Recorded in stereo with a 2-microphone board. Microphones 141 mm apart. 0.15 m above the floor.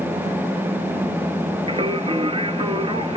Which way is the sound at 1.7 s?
40° right (ahead or behind).